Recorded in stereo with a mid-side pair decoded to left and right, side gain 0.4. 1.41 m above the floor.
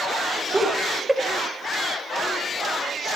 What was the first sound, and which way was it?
Laughter, 10° right.